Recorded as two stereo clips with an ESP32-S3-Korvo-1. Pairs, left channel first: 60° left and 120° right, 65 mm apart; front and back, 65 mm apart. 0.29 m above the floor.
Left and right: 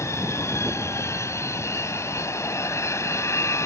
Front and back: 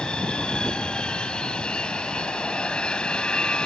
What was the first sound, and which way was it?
An aircraft, 70° left.